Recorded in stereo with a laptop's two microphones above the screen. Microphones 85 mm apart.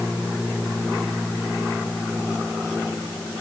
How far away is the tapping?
I don't hear tapping.